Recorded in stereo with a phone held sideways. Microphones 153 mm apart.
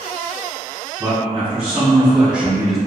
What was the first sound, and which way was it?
A man speaking, 5° right (ahead or behind).